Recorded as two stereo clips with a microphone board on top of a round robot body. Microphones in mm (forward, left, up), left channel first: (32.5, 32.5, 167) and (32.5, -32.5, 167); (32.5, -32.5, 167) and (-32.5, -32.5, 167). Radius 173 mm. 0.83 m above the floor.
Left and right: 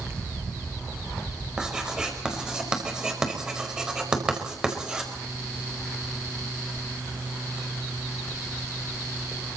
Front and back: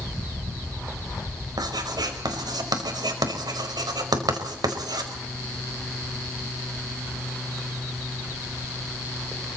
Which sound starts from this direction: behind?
Writing, at 1.6 s.